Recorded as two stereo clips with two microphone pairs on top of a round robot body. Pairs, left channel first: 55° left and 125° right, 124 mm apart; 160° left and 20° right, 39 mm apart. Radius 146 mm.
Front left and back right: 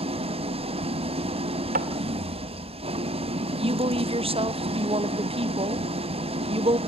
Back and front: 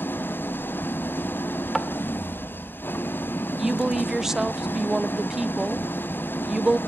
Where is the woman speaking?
95° right, 0.9 m.